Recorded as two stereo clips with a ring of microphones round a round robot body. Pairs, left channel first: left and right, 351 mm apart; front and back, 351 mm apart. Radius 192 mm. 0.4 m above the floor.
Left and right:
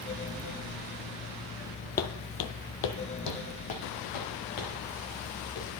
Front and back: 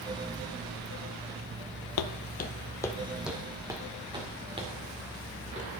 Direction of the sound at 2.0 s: 30° left.